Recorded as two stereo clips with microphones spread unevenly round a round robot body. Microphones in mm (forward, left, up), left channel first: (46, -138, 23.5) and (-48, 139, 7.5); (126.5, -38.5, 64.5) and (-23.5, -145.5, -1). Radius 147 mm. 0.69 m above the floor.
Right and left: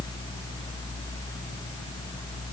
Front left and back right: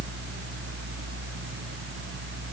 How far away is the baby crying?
I don't hear a baby crying.